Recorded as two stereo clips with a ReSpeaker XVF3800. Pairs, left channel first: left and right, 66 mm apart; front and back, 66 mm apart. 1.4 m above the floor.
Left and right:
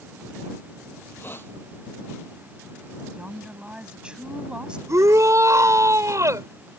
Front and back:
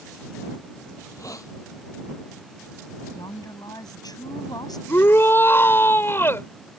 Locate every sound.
1.0 s a hiss: 35° left
3.1 s a woman speaking: 15° right
4.9 s a shout: 55° right